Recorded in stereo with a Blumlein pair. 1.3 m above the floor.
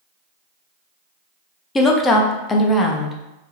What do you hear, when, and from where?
1.8 s a woman speaking: 20° left, 0.6 m